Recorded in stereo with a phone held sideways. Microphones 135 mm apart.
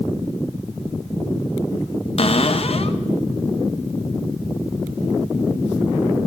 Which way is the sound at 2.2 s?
50° left (ahead or behind).